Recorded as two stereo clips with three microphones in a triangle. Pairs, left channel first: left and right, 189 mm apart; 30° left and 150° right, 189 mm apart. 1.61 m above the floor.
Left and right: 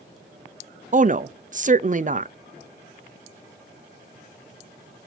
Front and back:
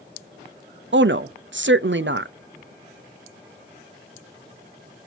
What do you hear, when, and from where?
0.9 s a woman speaking: 140° right, 0.5 m